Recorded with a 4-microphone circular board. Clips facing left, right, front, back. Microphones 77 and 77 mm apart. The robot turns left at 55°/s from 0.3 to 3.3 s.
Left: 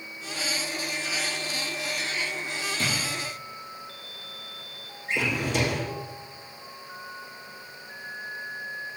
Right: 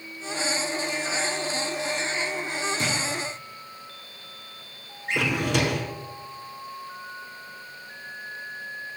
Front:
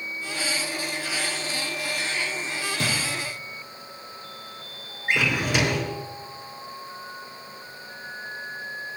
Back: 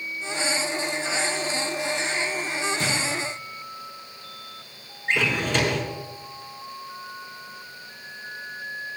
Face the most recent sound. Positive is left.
turn(degrees=-80)